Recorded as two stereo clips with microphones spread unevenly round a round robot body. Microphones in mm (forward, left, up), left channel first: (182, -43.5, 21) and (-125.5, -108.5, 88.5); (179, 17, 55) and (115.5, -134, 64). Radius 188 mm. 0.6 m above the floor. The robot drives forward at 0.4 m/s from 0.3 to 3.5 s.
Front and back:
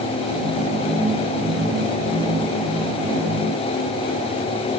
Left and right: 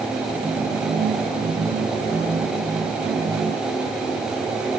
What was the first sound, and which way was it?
Only background noise.